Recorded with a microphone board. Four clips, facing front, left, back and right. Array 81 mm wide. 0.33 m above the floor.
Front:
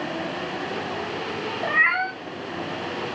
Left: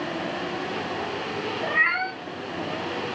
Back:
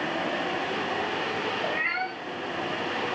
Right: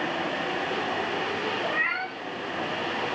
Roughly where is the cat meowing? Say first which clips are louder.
Left 4 dB, front 6 dB; ahead.